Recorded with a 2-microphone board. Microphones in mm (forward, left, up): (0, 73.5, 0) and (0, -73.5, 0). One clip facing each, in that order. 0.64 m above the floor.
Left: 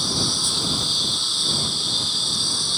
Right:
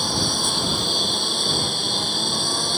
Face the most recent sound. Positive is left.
turn(degrees=-60)  # may be behind; listen again after turning